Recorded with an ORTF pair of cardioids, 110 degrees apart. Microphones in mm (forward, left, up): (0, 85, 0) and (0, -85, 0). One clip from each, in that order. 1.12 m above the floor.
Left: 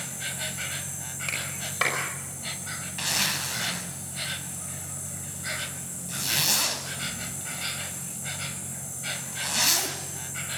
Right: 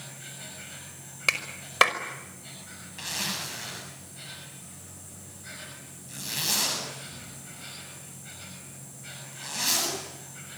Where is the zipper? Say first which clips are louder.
Left 5 dB; 35° left, 8 m.